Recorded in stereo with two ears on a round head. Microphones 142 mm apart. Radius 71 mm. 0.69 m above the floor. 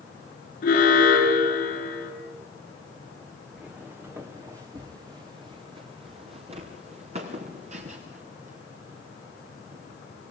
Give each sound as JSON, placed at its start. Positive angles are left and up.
{"t": 0.6, "sound": "an alarm", "side_deg": 55, "distance_m": 9.0}
{"t": 3.6, "sound": "footsteps", "side_deg": -5, "distance_m": 2.5}